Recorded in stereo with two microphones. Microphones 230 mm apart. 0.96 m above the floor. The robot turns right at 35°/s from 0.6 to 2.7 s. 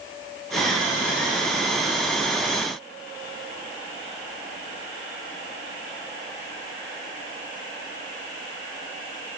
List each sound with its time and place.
Only background noise.